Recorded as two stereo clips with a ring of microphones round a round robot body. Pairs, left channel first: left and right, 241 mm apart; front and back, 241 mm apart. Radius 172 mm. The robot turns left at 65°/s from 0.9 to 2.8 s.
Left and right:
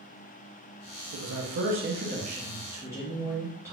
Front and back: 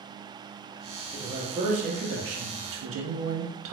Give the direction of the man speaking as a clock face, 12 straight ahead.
3 o'clock.